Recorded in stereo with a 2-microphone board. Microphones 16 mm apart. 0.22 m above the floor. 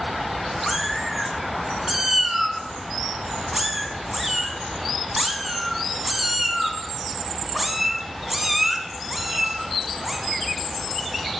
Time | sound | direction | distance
0.7 | a cat meowing | 15° right (ahead or behind) | 0.7 m